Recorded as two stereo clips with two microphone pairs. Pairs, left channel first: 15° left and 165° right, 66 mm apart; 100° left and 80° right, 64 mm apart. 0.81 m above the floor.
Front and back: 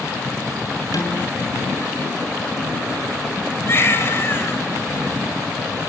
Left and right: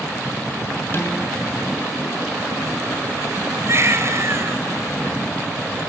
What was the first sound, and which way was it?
Dishes clattering, 45° left.